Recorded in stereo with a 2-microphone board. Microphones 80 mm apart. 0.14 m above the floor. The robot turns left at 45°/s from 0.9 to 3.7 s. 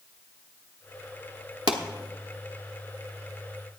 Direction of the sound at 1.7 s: 65° right (ahead or behind).